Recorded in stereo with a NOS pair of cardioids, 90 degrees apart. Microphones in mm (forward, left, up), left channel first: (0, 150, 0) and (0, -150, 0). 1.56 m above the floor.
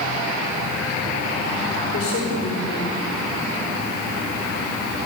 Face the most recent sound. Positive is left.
turn(degrees=50)